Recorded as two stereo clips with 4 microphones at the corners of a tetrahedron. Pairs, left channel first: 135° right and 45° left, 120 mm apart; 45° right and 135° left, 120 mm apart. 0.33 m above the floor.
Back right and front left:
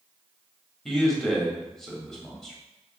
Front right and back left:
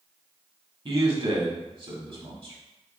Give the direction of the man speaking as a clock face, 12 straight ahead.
7 o'clock.